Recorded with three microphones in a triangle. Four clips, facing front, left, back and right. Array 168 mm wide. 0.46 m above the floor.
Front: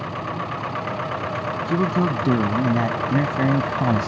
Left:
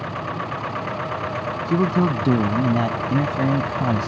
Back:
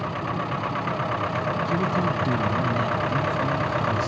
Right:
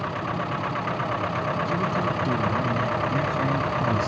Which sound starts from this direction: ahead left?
A man speaking, at 1.7 s.